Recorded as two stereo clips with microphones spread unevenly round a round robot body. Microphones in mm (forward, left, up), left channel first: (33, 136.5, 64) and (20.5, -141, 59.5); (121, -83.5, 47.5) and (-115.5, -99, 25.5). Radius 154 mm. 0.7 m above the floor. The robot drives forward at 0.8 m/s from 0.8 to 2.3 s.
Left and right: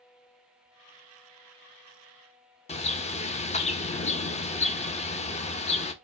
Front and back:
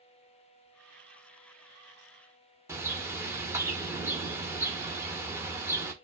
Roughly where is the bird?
Behind left.